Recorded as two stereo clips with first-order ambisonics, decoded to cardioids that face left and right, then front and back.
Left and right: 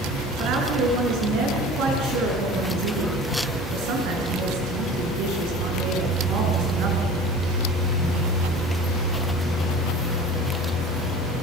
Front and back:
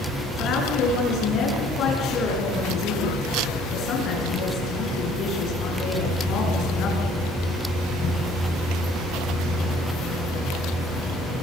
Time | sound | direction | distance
0.4 | a woman speaking | 55° right | 7.5 m